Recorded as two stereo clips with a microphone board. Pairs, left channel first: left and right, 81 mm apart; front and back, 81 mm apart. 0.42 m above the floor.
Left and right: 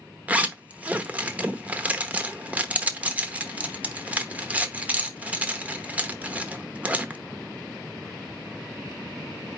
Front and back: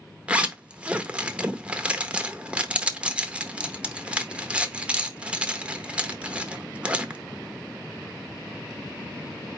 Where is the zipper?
130° right, 0.8 m.